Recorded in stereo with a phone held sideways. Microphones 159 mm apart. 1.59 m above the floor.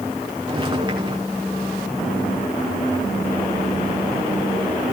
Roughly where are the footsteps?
Right.